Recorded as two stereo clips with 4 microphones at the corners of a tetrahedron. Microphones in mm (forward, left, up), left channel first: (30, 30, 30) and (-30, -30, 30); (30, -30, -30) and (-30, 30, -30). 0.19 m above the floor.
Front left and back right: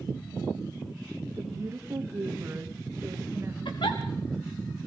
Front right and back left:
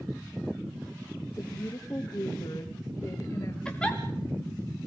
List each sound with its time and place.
1.4 s a woman speaking: 85° right, 2 m
3.6 s a giggle: 35° left, 3 m